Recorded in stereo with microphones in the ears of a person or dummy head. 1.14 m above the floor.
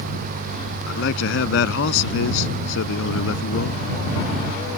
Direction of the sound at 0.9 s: 70° left (ahead or behind).